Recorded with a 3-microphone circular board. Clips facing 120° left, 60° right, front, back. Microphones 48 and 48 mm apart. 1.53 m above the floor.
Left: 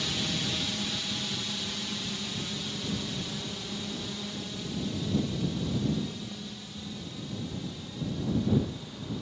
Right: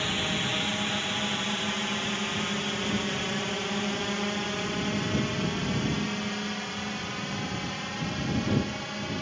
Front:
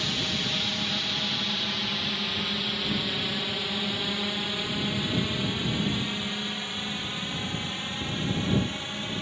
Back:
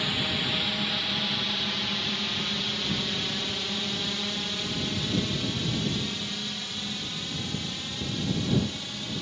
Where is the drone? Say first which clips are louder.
Right 3 dB, back 1 dB; 105° right; by 9.2 s 60° right.